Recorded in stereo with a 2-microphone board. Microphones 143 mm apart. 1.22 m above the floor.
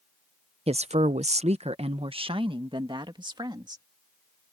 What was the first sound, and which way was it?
A woman speaking, 50° right (ahead or behind).